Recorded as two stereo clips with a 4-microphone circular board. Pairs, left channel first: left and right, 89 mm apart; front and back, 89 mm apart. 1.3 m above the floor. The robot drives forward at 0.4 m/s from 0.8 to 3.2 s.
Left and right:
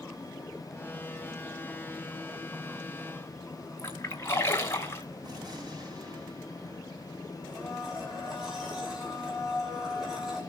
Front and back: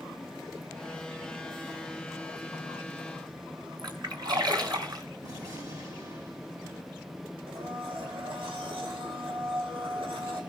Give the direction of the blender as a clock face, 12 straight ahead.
6 o'clock.